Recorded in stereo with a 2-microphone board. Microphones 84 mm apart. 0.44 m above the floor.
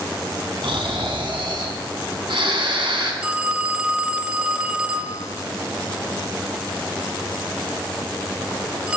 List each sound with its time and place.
0.6 s snoring: 75° right (ahead or behind), 3 m
3.2 s a phone ringing: 15° right (ahead or behind), 0.6 m